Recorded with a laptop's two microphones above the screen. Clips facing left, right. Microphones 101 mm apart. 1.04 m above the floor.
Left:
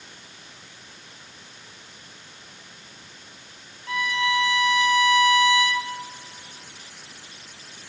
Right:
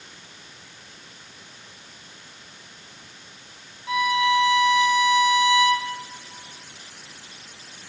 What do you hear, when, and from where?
3.9 s a violin: 15° right (ahead or behind), 0.7 m